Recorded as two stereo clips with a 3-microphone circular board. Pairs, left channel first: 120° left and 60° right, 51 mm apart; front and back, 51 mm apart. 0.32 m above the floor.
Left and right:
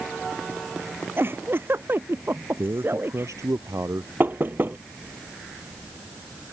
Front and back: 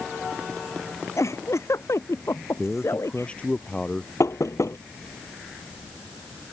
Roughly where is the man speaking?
Ahead right.